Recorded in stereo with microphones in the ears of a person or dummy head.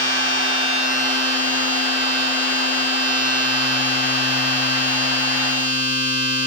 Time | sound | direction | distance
0.0 | a machine running | 45° right (ahead or behind) | 3 m